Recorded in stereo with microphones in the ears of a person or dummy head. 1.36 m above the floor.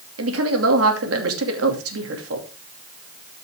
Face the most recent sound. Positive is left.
turn(degrees=-85)